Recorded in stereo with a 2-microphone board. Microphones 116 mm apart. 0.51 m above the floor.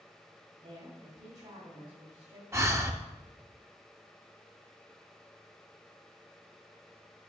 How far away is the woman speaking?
About 2.5 m.